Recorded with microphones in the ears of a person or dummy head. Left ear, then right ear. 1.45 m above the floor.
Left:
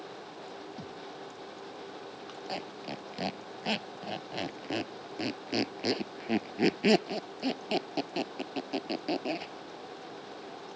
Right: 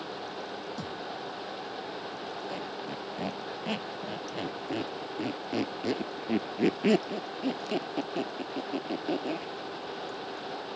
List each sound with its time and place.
0.8 s a thud: 50° right (ahead or behind)
2.5 s a squeak: 25° left (ahead or behind)